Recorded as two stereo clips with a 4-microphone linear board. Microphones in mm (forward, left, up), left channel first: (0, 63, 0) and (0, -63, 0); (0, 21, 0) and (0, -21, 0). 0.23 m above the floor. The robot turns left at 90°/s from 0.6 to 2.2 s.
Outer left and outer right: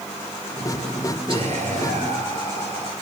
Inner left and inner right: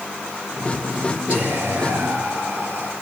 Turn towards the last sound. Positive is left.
turn(degrees=-125)